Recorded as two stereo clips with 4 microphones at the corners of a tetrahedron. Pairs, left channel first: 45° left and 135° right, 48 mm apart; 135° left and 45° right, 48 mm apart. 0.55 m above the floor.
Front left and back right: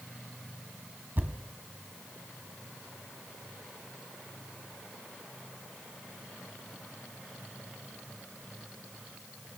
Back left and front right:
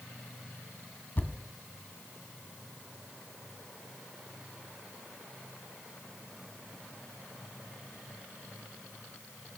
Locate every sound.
1.2 s a thud: straight behind, 1.4 m